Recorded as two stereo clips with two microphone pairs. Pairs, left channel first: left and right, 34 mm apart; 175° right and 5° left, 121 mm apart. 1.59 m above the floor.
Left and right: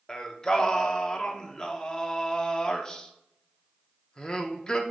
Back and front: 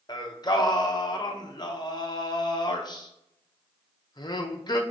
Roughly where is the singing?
Behind left.